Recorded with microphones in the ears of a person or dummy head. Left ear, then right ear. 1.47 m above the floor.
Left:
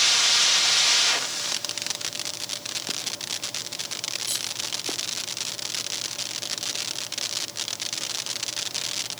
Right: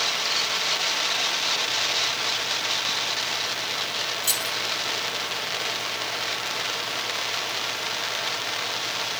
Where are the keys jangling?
20° right (ahead or behind), 3.5 m.